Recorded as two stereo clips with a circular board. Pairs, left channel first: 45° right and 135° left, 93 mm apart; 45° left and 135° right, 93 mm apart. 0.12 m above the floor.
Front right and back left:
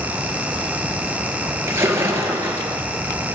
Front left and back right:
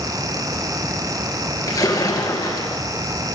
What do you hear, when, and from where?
1.7 s a splash: 80° left, 2 m